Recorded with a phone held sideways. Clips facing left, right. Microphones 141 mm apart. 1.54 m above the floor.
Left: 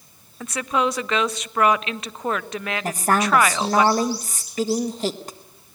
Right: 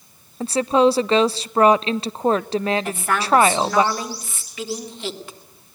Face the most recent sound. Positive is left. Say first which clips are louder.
# left 1 dB
turn(degrees=40)  # may be behind; listen again after turning